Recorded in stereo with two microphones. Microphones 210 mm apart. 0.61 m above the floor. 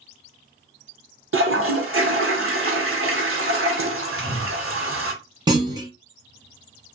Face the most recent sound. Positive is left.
turn(degrees=-20)  # may be behind; listen again after turning